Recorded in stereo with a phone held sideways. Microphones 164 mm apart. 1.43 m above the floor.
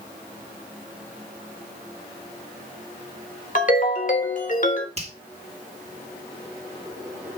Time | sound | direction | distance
3.5 | a ringtone | 50° left (ahead or behind) | 1.1 m
5.0 | a finger snap | 40° right (ahead or behind) | 1.7 m